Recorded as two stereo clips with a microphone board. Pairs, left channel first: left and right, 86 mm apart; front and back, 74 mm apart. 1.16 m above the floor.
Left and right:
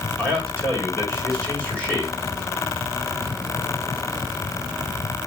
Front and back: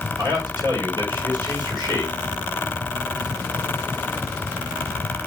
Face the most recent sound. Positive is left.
turn(degrees=165)